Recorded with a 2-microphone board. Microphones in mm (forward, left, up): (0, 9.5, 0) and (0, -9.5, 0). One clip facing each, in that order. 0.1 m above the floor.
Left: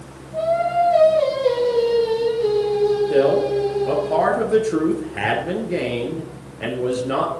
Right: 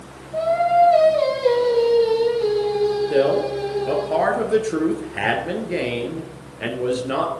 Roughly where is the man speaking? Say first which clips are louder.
Left 2 dB; centre.